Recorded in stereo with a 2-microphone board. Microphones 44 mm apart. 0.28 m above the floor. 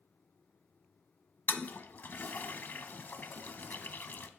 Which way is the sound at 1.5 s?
50° left (ahead or behind).